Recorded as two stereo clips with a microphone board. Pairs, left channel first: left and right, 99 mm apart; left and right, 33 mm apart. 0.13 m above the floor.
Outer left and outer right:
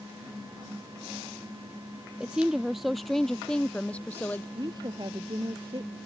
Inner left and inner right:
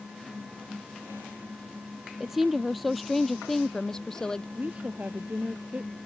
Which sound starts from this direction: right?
A woman speaking, at 4.5 s.